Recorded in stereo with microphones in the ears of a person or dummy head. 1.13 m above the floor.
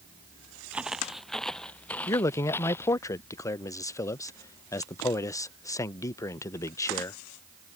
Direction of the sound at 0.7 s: 5° right (ahead or behind).